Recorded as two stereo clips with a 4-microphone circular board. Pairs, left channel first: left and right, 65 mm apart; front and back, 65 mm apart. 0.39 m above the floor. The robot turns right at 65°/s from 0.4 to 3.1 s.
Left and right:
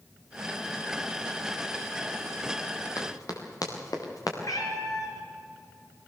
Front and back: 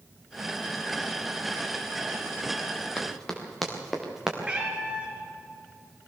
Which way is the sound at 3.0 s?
70° left.